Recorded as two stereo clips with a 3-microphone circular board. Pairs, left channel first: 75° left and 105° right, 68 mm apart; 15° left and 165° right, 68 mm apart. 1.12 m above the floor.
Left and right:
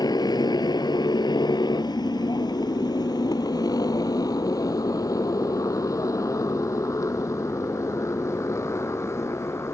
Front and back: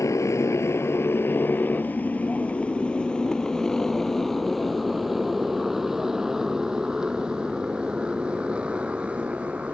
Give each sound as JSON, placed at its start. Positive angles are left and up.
{"t": 0.0, "sound": "a motorcycle", "azimuth_deg": 60}